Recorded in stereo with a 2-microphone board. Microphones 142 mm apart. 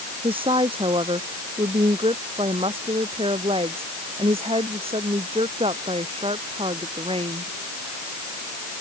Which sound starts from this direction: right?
A woman speaking, at 0.2 s.